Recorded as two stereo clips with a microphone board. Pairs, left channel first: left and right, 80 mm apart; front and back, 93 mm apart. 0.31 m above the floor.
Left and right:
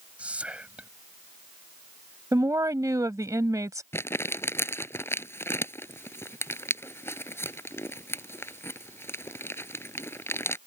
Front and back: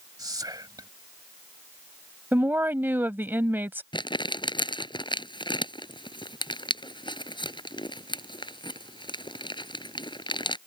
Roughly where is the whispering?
Behind.